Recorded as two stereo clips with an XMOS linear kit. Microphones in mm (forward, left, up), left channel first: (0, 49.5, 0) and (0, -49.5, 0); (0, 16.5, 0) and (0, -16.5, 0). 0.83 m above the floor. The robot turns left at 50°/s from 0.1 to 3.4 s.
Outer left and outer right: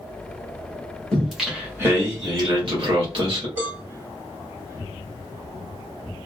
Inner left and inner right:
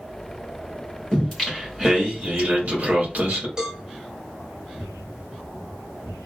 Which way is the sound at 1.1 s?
10° left.